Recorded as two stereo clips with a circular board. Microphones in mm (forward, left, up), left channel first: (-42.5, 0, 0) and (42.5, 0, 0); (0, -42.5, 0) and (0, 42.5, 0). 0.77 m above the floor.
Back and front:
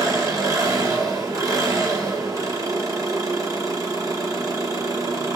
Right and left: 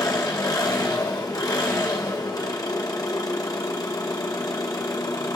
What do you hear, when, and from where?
0.0 s an engine running: 45° right, 0.9 m